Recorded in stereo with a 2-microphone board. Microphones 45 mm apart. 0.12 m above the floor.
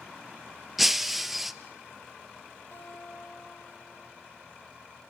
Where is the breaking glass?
5° right (ahead or behind), 1.0 m.